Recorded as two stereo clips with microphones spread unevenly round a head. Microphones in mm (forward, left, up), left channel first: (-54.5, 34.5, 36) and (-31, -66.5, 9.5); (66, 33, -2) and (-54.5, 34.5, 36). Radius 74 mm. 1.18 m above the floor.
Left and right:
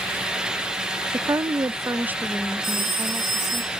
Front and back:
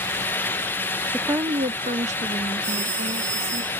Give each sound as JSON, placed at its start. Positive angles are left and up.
{"t": 1.1, "sound": "a woman speaking", "azimuth_deg": -80, "distance_m": 0.6}
{"t": 2.6, "sound": "a phone ringing", "azimuth_deg": -120, "distance_m": 7.5}